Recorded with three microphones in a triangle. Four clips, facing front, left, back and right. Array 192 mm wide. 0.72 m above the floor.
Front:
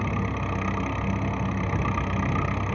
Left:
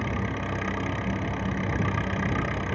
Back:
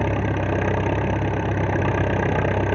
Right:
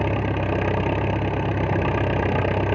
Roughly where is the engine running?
Behind right.